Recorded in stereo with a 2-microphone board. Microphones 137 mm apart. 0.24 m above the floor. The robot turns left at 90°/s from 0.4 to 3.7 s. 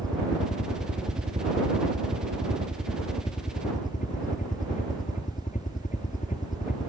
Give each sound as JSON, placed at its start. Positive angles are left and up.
{"t": 0.0, "sound": "a helicopter", "azimuth_deg": 35}